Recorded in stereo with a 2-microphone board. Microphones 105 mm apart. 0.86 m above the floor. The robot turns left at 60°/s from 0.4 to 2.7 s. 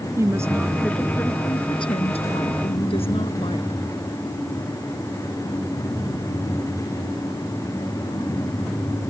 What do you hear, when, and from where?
0.2 s a woman speaking: 150° right; by 3.8 s 70° left